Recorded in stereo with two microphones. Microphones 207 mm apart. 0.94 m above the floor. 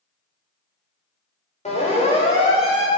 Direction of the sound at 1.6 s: 35° left (ahead or behind).